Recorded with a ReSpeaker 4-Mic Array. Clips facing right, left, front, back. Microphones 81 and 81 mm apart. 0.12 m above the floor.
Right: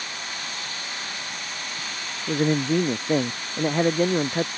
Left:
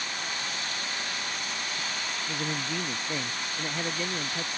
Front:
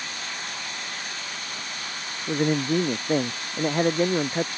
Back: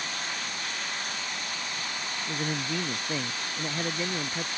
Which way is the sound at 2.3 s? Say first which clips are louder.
Right 14 dB, front 10 dB; 45° right.